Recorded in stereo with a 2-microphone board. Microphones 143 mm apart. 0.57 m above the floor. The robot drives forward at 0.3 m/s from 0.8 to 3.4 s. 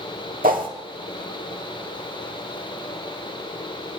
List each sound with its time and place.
0.4 s a whoosh: 80° right, 0.9 m